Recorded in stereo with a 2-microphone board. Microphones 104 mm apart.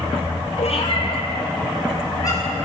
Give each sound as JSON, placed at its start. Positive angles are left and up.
{"t": 0.6, "sound": "a cat meowing", "side_deg": 70, "distance_m": 2.0}